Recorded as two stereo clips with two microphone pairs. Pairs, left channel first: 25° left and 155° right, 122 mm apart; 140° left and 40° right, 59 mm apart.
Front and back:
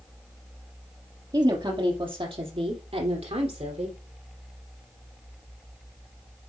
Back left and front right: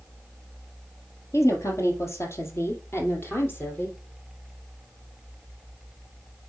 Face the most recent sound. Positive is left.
turn(degrees=-170)